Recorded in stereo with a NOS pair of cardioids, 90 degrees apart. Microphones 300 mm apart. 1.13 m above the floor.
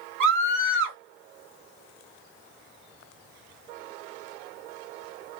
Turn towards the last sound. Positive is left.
turn(degrees=-60)